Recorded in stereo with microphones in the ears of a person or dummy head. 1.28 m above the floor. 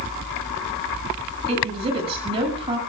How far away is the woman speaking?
About 8.5 m.